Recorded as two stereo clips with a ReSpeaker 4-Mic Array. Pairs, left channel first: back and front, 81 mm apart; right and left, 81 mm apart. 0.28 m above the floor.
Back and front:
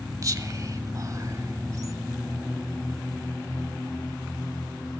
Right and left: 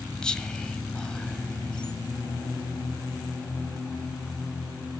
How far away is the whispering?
About 1.2 m.